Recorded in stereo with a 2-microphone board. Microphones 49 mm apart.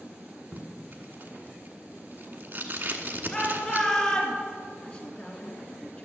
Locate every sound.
0.5 s tape being pulled: 50° right (ahead or behind), 1.3 m
3.3 s a shout: 15° left (ahead or behind), 2.5 m
4.8 s a woman speaking: 20° left (ahead or behind), 3 m